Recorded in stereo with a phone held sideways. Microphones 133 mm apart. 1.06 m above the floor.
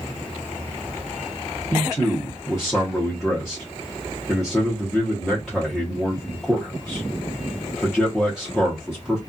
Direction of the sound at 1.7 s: Centre (ahead or behind).